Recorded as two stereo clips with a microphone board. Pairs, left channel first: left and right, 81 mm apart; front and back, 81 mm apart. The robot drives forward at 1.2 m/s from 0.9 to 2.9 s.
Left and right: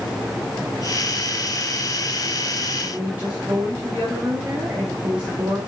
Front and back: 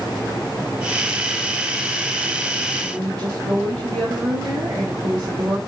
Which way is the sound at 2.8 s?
165° right.